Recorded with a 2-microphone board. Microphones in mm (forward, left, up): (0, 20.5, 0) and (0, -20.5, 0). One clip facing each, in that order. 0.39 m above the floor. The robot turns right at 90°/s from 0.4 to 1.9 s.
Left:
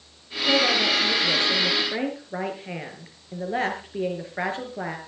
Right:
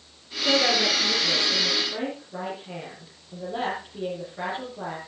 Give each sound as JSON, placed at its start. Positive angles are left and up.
{"t": 0.4, "sound": "a woman speaking", "azimuth_deg": -60, "distance_m": 6.0}